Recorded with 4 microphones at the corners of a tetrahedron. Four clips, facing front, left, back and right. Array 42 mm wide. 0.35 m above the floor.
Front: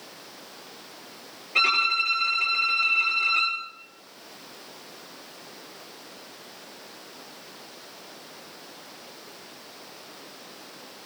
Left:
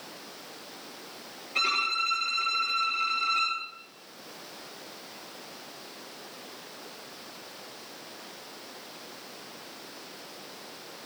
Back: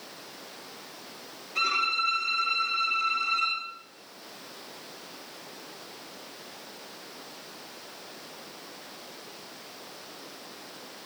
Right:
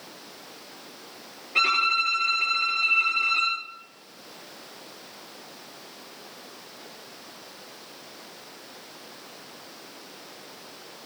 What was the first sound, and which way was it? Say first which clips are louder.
A violin: right 5 dB, front 5 dB; 35° right.